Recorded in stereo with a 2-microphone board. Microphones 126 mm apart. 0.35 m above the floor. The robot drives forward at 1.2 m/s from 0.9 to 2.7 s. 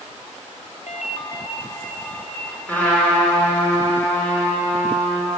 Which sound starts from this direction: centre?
A trumpet, at 2.7 s.